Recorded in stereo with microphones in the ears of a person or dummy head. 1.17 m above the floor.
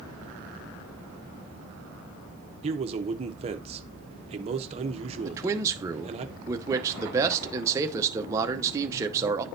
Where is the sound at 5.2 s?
15° right (ahead or behind), 0.7 m.